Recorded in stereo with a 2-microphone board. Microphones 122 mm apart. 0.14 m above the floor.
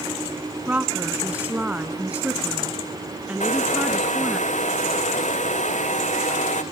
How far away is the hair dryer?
About 1.7 m.